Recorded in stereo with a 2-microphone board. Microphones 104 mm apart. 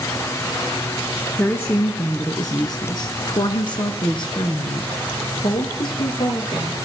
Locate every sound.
1.4 s a woman speaking: 20° left (ahead or behind), 1.4 m; by 6.8 s 45° left (ahead or behind), 3 m